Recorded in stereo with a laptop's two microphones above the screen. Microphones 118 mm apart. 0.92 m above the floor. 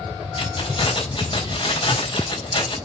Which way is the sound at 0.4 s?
45° left (ahead or behind).